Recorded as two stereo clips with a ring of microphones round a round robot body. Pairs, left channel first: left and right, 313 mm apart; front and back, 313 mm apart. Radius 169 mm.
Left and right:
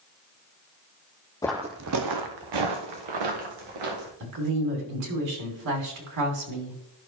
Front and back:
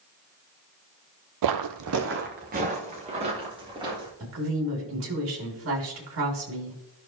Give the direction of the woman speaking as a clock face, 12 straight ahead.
4 o'clock.